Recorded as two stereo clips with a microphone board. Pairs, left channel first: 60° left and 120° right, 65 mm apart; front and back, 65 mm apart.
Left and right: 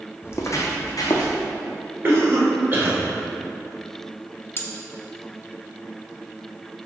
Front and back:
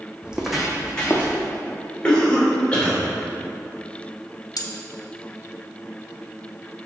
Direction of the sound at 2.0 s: 75° right.